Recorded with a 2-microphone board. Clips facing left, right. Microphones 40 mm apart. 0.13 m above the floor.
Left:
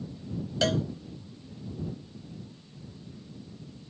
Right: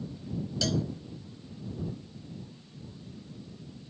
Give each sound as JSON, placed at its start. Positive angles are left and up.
{"t": 0.6, "sound": "a cowbell", "side_deg": 35}